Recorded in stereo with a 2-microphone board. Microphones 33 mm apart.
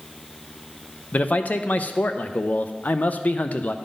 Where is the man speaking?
50° left (ahead or behind), 0.6 m.